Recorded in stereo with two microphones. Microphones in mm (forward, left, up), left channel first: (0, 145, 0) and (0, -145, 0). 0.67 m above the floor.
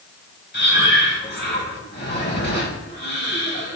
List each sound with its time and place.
0.5 s breathing: 40° left (ahead or behind), 3.5 m